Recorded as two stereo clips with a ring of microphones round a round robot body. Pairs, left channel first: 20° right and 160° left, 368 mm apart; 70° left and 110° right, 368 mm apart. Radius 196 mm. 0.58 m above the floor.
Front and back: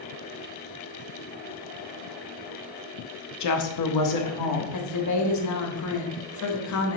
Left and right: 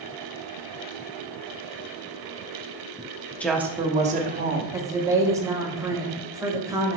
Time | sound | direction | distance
3.4 | a woman speaking | 15° right | 1.2 m
4.7 | a woman speaking | 35° right | 1.5 m